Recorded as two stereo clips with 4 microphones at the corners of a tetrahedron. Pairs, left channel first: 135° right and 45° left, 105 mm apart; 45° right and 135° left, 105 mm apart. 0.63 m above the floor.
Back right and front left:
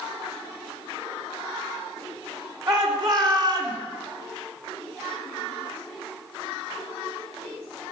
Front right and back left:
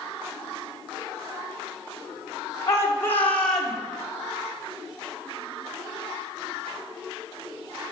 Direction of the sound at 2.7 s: 10° left.